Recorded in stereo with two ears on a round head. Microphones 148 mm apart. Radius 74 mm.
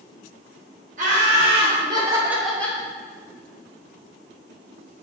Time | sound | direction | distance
1.0 | laughter | 50° right (ahead or behind) | 1.7 m